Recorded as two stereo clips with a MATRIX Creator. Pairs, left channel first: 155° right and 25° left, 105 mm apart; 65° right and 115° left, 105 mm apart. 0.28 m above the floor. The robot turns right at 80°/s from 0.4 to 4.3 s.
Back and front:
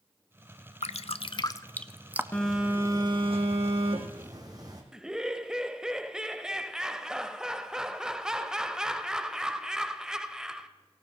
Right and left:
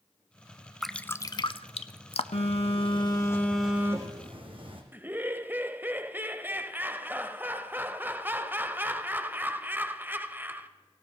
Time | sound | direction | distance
0.8 | dripping | 160° right | 0.5 m
2.3 | a phone buzzing | 80° right | 2.5 m
4.9 | laughter | 95° left | 0.9 m